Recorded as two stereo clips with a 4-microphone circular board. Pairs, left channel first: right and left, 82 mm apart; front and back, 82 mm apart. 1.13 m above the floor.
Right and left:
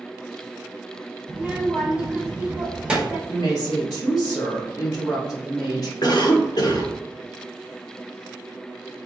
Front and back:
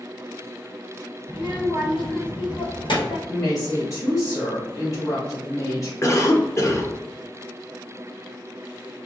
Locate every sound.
1.3 s a child speaking: 15° left, 1.3 m
3.3 s a woman speaking: 50° right, 2 m
6.0 s a cough: 55° right, 1.1 m